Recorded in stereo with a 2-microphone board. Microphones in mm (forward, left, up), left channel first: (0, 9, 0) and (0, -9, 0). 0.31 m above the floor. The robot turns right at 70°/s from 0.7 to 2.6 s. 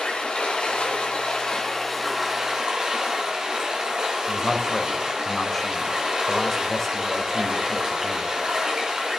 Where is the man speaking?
20° left (ahead or behind), 1.2 m.